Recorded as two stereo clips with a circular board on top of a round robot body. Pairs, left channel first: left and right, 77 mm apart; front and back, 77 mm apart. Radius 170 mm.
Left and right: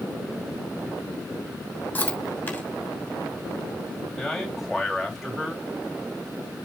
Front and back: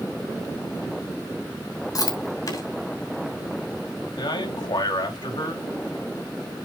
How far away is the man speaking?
About 3 m.